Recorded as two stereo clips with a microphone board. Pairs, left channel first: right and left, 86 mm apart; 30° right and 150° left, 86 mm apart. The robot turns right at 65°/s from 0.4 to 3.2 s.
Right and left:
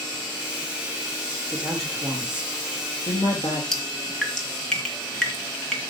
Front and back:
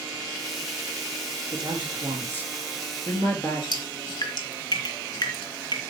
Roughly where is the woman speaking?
Behind.